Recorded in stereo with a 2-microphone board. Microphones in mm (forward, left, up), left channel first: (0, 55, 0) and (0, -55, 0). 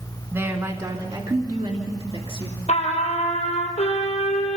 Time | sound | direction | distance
0.3 | a woman speaking | 25° right (ahead or behind) | 1.9 m
2.7 | a trumpet | 80° left | 3.5 m